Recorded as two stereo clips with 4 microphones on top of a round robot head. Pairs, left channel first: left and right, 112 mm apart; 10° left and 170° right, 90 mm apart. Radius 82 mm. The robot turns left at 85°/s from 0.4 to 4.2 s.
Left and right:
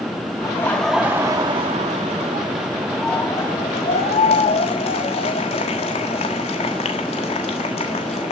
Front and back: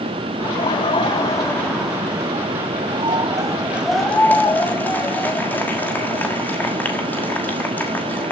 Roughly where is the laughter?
Ahead left.